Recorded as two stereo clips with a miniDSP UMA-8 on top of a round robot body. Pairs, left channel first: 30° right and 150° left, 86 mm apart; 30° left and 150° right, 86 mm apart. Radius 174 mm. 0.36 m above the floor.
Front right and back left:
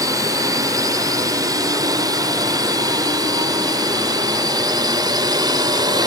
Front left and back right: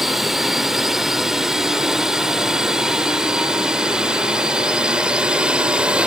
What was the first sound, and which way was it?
A drone, 125° left.